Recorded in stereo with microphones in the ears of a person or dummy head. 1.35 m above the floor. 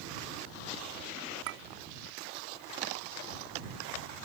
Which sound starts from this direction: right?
A clink, at 1.5 s.